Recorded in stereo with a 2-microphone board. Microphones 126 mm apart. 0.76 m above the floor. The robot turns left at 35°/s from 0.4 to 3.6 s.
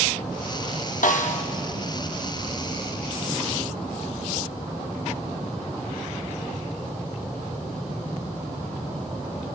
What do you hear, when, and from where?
1.0 s a snare drum: 70° left (ahead or behind), 0.7 m; by 1.4 s 60° left (ahead or behind), 0.7 m